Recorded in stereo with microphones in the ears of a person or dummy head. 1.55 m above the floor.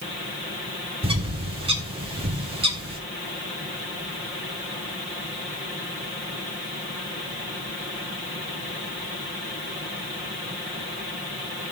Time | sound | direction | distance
1.0 | a bird | 25° right (ahead or behind) | 1.2 m